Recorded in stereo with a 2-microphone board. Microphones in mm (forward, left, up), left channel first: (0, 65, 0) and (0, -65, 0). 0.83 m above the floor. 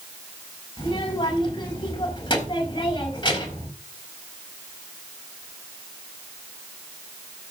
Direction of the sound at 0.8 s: 35° left (ahead or behind).